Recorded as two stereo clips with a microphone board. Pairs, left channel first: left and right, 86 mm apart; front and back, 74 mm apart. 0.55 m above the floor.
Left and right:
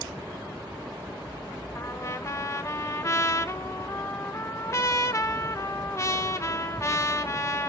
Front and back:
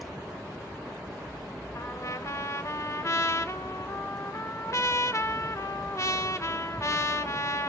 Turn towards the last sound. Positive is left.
turn(degrees=40)